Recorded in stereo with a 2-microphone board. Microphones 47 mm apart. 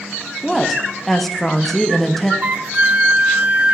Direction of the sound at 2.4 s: 30° right (ahead or behind).